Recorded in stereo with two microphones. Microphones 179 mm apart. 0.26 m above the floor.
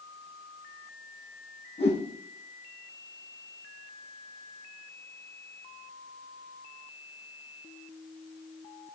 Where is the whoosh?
35° left (ahead or behind), 4 m.